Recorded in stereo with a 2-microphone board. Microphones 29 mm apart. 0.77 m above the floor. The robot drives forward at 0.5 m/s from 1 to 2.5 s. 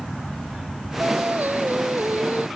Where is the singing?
70° right (ahead or behind); by 2.5 s 75° right (ahead or behind).